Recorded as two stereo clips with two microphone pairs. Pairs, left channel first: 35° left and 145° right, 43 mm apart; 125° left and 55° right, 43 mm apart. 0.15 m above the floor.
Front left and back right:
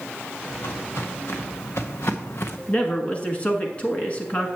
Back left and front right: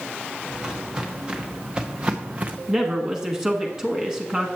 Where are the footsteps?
20° left, 2.5 m; by 2.6 s 5° left, 0.7 m.